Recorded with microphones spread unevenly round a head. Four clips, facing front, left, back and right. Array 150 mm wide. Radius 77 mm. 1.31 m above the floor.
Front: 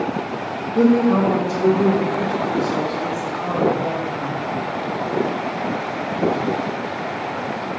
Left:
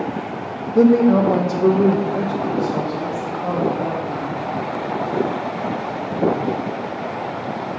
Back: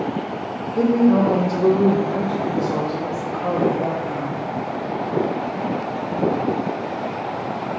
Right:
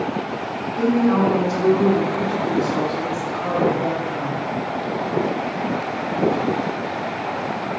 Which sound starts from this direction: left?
A woman speaking, at 0.8 s.